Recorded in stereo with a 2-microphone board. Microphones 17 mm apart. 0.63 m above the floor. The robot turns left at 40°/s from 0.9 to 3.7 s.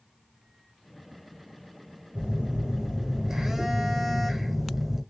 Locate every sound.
2.1 s a phone buzzing: 95° right, 1.1 m; by 5.0 s 155° right, 1.1 m